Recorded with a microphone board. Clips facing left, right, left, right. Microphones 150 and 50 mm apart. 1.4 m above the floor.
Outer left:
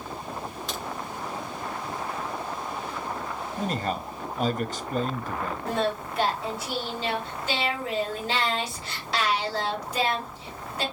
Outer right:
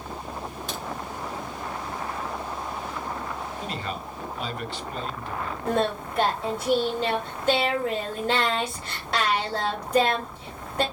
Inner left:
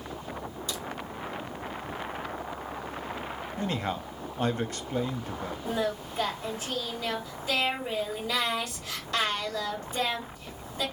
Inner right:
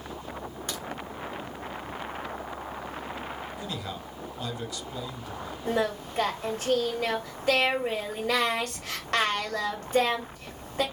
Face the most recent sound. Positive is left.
turn(degrees=-55)  # may be behind; listen again after turning